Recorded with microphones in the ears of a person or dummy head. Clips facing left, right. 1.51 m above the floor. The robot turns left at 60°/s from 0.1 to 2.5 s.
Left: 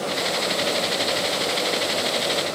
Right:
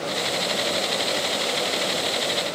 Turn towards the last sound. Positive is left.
No sound to turn to.